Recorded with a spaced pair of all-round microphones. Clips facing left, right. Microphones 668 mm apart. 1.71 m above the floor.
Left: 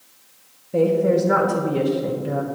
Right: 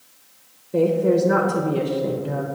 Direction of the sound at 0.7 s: 15° left (ahead or behind).